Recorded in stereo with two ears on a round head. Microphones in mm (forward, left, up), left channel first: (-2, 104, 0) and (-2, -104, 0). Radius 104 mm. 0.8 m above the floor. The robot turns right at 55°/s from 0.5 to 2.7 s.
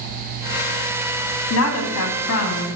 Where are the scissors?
No scissors in this recording.